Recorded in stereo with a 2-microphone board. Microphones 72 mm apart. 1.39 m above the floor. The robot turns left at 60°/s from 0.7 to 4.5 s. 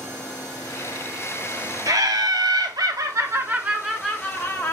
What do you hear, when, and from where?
1.9 s laughter: 55° right, 0.8 m; by 4.7 s 150° left, 0.8 m